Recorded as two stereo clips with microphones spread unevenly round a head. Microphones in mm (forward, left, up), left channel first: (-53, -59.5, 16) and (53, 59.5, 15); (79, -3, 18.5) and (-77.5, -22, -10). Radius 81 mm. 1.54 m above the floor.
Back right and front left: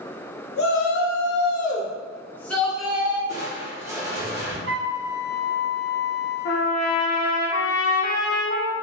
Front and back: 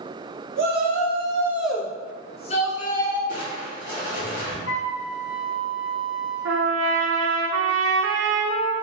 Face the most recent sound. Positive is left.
turn(degrees=-170)